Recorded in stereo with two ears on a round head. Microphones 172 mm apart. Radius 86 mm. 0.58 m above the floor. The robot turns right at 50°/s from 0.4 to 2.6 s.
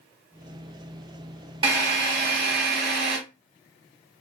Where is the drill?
145° right, 1.6 m; by 3.2 s 100° right, 1.6 m.